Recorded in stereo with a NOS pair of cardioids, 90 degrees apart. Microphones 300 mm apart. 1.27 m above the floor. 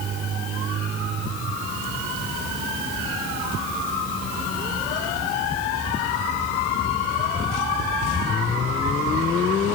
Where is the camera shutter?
No camera shutter in this recording.